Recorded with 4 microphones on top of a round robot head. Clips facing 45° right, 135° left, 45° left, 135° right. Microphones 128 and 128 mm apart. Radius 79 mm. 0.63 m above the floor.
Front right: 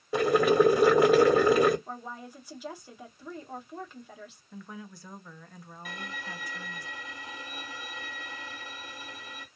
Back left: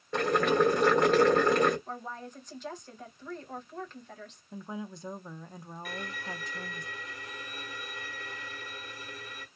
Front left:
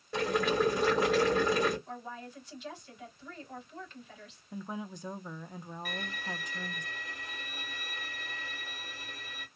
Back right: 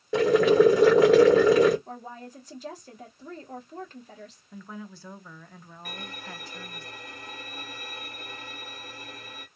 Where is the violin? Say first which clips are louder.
Back left 1 dB, back right 1 dB; 105° right, 1.7 m.